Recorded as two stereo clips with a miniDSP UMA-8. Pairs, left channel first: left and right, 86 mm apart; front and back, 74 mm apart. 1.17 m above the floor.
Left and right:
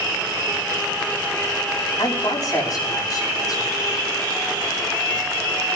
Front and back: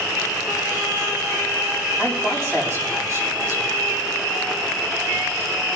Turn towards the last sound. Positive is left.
turn(degrees=130)